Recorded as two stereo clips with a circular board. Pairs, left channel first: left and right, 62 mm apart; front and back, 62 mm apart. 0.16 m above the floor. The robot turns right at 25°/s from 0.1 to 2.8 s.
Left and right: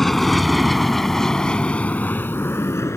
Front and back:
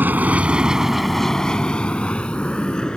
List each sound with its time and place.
0.0 s an aircraft: 175° left; by 3.0 s 70° left